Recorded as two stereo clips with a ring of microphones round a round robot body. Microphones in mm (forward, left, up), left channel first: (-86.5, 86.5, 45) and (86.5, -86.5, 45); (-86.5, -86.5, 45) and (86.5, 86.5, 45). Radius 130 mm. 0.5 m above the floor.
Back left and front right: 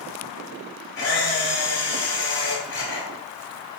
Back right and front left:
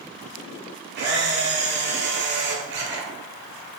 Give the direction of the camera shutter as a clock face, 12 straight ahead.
9 o'clock.